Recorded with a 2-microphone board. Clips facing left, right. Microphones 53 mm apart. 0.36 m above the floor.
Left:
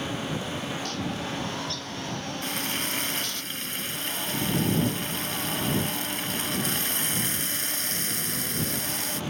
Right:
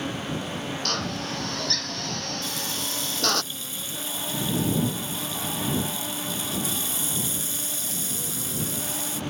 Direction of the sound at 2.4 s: 55° left (ahead or behind).